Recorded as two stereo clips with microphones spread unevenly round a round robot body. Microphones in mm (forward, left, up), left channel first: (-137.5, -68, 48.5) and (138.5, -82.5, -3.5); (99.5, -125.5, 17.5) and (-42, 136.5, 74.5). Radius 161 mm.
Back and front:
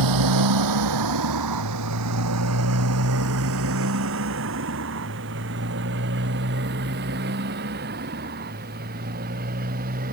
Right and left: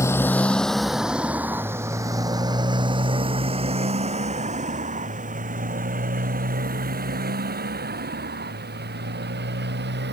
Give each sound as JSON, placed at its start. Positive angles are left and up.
{"t": 0.0, "sound": "a motorcycle", "azimuth_deg": 20}